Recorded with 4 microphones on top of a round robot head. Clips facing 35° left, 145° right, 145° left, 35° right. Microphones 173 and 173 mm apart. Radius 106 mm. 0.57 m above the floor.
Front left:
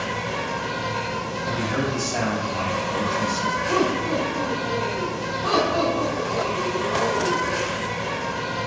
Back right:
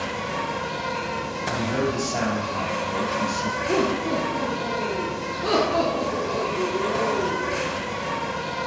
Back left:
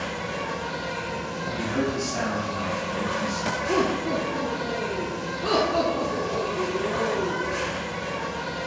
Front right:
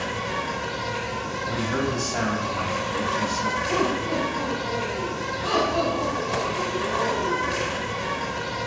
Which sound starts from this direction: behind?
Laughter, at 3.7 s.